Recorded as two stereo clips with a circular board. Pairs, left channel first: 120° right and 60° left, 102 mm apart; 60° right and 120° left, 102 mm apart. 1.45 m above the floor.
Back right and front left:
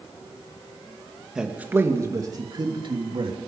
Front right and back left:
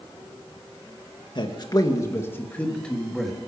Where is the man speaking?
20° right, 2 m; by 3.4 s 30° left, 3.5 m.